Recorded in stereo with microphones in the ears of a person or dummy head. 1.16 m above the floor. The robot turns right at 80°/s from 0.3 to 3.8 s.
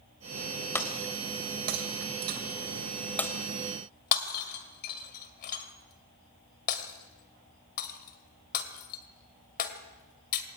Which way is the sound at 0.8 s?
5° left (ahead or behind).